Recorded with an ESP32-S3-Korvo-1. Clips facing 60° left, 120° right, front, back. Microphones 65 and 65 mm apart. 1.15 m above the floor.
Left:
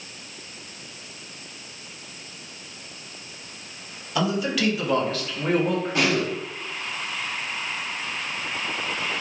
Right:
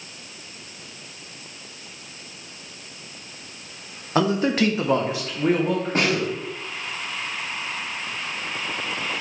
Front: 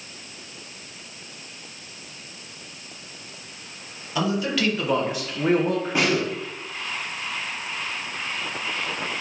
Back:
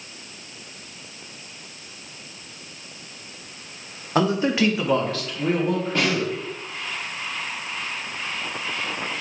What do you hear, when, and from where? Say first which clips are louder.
4.2 s a man speaking: right 4 dB, back 4 dB; 155° right, 1.0 m; by 6.4 s 20° right, 1.5 m
6.0 s a snare drum: even, front 3 dB; 75° right, 1.2 m